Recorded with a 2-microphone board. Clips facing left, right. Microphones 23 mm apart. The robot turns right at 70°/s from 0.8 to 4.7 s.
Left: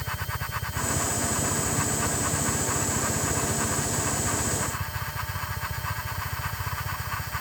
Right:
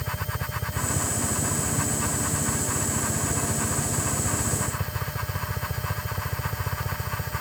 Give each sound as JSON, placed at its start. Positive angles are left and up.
{"t": 0.0, "sound": "a helicopter", "azimuth_deg": -25}